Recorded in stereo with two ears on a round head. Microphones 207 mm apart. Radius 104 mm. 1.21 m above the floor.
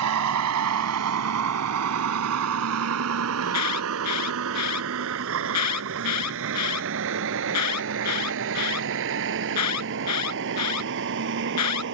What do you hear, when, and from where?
0.0 s a vehicle: 80° right; by 11.9 s 55° right (ahead or behind)
3.4 s an alarm: 85° left